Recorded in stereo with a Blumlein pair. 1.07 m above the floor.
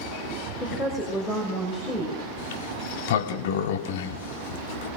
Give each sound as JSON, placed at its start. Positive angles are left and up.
{"t": 0.6, "sound": "a woman speaking", "azimuth_deg": 5, "distance_m": 6.0}
{"t": 2.4, "sound": "a sliding door", "azimuth_deg": 55, "distance_m": 1.6}